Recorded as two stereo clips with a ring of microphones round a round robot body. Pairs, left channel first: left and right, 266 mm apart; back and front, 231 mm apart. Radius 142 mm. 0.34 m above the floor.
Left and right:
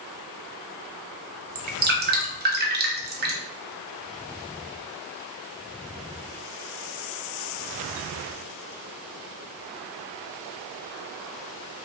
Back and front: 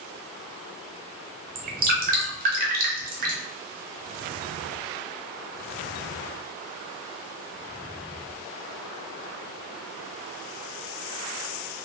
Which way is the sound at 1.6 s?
45° right.